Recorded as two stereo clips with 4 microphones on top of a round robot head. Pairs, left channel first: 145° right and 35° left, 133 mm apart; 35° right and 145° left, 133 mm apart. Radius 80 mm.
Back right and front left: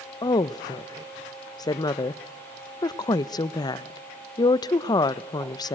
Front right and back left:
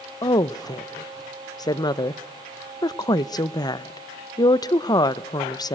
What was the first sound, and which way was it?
A woman speaking, 90° right.